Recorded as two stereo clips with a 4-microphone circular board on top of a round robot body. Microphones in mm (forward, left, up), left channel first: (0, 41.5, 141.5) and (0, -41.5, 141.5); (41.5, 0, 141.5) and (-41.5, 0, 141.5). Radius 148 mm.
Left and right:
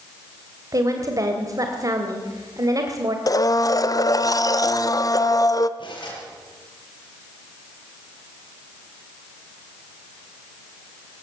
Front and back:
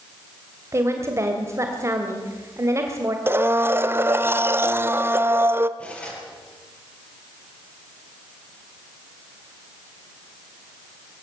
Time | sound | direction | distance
0.7 | a woman speaking | 130° right | 2.5 m
3.3 | a blender | 120° left | 1.0 m
5.8 | cutlery clinking | 75° left | 5.5 m